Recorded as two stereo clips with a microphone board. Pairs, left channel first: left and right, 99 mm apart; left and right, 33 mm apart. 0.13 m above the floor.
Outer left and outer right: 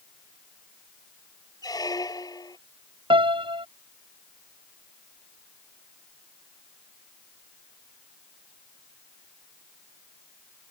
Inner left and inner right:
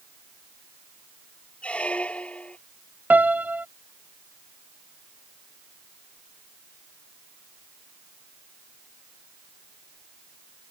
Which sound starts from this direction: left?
A squeak, at 1.6 s.